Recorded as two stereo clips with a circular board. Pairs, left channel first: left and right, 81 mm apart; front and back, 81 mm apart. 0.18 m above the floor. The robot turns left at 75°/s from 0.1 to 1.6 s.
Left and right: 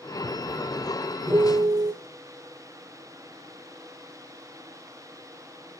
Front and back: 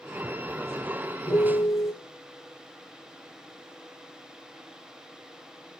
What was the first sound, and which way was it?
A piano, 30° right.